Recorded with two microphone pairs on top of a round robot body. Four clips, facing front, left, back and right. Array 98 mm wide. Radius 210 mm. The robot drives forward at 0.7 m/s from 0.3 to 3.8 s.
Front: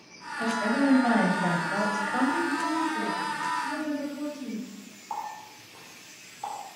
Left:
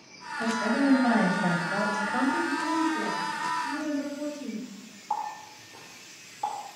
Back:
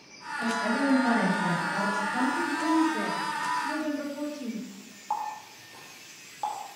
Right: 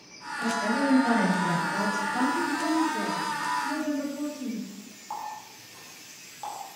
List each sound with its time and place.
0.4 s a woman speaking: 30° left, 2.5 m; by 2.5 s 55° left, 1.6 m
2.6 s a woman speaking: 145° right, 1.1 m; by 4.7 s 160° right, 1.8 m
5.1 s a running tap: 170° left, 1.8 m